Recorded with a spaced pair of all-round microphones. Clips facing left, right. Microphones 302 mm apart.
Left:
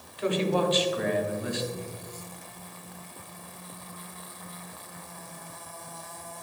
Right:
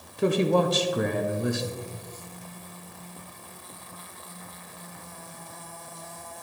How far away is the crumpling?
I don't hear crumpling.